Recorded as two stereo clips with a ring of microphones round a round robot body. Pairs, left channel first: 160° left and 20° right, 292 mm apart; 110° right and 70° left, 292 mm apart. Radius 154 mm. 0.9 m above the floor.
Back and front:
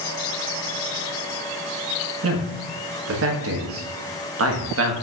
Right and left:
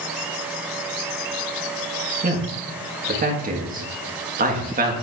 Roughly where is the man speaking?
Ahead.